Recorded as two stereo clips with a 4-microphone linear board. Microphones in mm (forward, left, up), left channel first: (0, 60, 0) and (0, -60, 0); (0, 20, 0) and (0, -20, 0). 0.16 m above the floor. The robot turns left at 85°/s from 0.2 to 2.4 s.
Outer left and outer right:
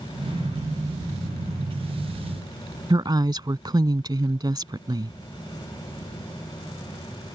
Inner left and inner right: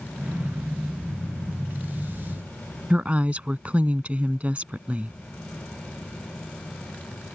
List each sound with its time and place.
2.9 s a woman speaking: 35° right (ahead or behind)